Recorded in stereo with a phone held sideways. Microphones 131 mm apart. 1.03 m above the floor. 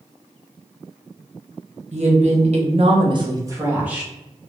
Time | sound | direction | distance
1.9 | a woman speaking | 55° right (ahead or behind) | 0.9 m